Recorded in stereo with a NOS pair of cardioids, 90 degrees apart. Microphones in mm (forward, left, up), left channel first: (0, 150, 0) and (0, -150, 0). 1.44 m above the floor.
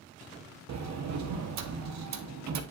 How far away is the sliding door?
About 1.1 m.